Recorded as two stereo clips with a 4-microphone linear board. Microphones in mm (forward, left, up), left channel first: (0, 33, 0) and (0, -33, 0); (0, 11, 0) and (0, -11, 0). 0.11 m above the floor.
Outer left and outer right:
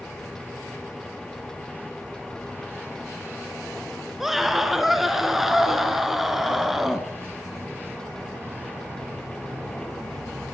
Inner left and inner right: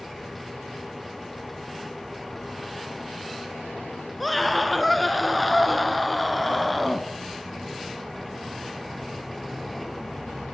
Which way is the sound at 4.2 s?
5° right (ahead or behind).